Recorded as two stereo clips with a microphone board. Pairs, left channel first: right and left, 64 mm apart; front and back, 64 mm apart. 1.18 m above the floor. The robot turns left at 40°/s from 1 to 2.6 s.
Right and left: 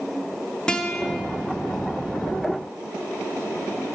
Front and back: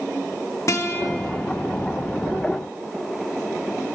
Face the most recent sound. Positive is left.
turn(degrees=-85)